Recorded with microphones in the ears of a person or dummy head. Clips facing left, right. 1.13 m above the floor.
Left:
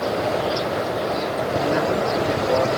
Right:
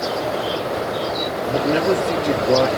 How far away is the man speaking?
About 2.5 m.